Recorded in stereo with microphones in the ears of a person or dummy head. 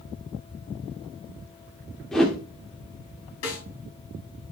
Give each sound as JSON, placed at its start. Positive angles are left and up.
{"t": 2.1, "sound": "a whoosh", "side_deg": 5, "distance_m": 1.6}
{"t": 3.4, "sound": "a snare drum", "side_deg": 75, "distance_m": 4.5}